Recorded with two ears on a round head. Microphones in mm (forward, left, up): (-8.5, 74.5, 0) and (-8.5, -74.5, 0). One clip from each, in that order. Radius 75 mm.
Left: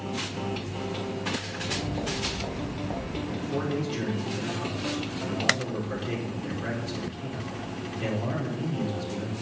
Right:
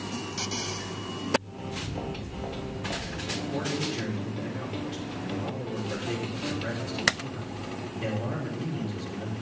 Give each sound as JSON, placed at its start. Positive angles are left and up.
{"t": 1.6, "sound": "footsteps", "side_deg": -15, "distance_m": 3.5}
{"t": 3.3, "sound": "a man speaking", "side_deg": 0, "distance_m": 5.0}